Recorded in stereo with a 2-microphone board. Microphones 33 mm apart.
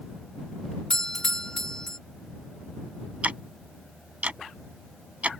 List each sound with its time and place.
0.9 s a doorbell: 25° left (ahead or behind)
3.2 s ticking: 45° right (ahead or behind)